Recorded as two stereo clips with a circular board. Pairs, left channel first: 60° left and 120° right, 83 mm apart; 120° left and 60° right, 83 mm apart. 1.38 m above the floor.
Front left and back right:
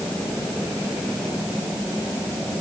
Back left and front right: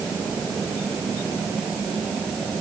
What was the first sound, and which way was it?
Only background noise.